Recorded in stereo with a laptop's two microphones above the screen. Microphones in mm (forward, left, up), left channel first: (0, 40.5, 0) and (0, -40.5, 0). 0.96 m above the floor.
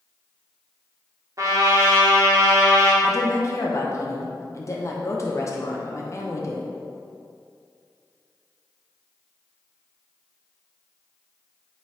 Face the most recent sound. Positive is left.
turn(degrees=40)  # may be behind; listen again after turning